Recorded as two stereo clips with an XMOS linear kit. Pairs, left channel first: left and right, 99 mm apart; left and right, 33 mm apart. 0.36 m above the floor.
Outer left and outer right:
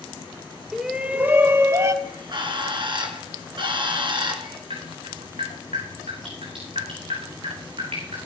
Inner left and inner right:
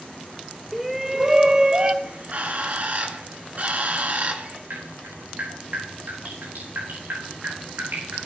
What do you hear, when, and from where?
0.7 s a shout: centre (ahead or behind), 1.4 m; by 1.9 s 35° right (ahead or behind), 1.7 m
2.0 s a bird: 55° right (ahead or behind), 2 m
4.7 s dripping: 80° right, 9 m